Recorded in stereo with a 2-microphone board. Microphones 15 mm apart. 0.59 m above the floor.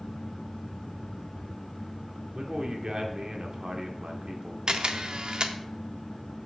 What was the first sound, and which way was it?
A man speaking, 55° right (ahead or behind).